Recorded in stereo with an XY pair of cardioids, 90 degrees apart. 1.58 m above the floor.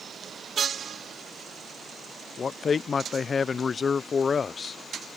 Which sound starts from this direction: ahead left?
A man speaking, at 2.4 s.